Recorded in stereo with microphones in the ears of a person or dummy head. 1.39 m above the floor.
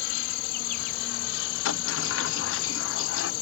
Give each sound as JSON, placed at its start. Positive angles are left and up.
{"t": 0.0, "sound": "an insect", "side_deg": 50}
{"t": 1.6, "sound": "a sliding door", "side_deg": 65}